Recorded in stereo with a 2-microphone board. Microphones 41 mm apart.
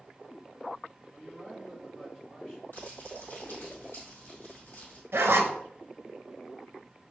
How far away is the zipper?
About 0.6 m.